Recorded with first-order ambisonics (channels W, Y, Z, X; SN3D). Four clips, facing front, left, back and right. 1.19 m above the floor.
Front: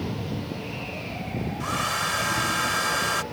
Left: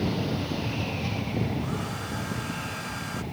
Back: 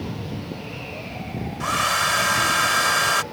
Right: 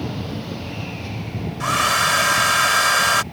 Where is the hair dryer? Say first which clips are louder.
Right 14 dB, back 6 dB; 110° right.